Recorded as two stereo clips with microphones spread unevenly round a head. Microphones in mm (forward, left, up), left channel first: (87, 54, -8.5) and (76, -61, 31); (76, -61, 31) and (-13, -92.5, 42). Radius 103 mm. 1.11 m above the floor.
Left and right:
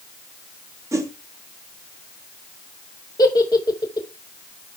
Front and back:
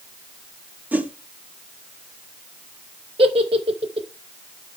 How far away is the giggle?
About 0.6 m.